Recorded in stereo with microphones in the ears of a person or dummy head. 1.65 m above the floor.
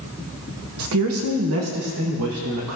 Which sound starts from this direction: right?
A woman speaking, at 0.8 s.